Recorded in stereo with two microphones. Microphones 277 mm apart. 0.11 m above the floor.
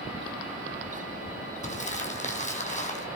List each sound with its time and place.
1.6 s crumpling: 25° left (ahead or behind), 2.5 m